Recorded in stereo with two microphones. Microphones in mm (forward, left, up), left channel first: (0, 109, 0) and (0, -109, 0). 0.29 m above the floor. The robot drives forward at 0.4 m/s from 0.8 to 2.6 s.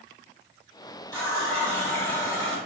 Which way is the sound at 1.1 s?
10° left (ahead or behind).